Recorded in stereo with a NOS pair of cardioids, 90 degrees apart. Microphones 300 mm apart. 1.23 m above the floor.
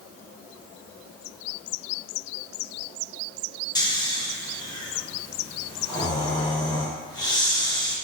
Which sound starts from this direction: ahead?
Snoring, at 3.8 s.